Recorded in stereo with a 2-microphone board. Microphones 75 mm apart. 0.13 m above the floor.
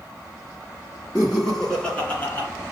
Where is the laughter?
15° right (ahead or behind), 1.9 m; by 2.5 s 30° left (ahead or behind), 2 m.